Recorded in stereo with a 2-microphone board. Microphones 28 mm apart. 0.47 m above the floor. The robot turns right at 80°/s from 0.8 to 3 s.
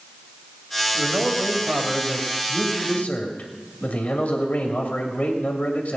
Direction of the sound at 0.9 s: 75° right.